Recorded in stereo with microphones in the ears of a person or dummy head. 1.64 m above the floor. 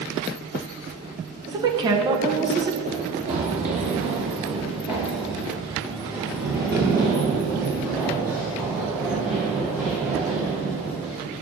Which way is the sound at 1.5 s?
25° right (ahead or behind).